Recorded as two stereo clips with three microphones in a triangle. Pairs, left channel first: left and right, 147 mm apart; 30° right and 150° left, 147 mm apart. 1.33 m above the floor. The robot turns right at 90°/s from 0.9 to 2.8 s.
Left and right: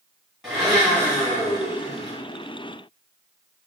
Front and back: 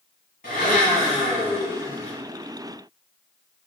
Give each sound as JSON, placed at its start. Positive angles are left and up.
{"t": 0.4, "sound": "a blender", "azimuth_deg": 0, "distance_m": 1.5}